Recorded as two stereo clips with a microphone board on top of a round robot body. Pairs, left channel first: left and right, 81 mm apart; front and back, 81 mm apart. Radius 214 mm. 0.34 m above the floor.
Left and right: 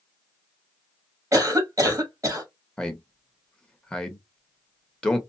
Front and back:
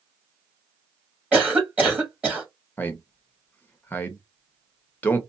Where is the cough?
115° right, 1.6 m.